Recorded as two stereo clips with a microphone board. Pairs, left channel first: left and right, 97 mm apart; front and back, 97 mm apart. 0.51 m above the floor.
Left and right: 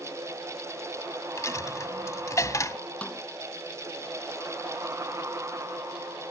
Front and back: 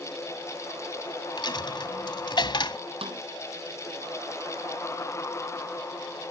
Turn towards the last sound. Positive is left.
turn(degrees=165)